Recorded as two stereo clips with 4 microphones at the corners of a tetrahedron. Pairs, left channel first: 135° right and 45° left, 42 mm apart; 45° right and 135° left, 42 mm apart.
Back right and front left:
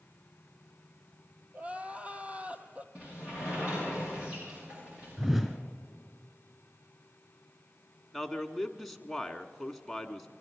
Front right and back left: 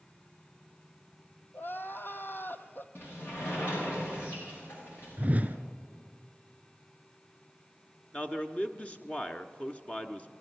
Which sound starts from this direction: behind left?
A whoosh, at 5.2 s.